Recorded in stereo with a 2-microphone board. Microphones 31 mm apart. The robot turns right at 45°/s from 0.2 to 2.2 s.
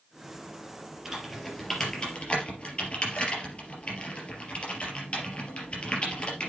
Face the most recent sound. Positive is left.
turn(degrees=40)  # may be behind; listen again after turning